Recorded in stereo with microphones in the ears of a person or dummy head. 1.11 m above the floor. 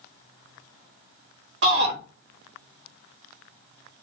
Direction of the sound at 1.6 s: 65° right (ahead or behind).